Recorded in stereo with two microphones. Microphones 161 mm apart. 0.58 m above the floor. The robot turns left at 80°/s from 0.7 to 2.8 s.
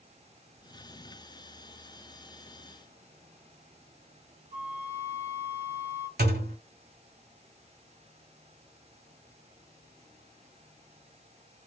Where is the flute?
85° right, 1.2 m.